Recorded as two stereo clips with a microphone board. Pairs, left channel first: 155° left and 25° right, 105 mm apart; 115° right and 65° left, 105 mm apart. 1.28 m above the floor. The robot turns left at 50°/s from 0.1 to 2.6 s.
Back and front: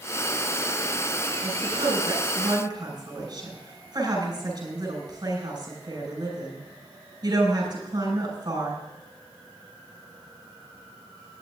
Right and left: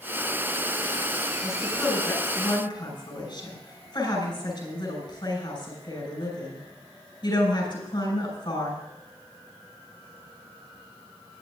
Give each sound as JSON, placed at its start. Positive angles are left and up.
{"t": 1.4, "sound": "a woman speaking", "azimuth_deg": -10, "distance_m": 6.0}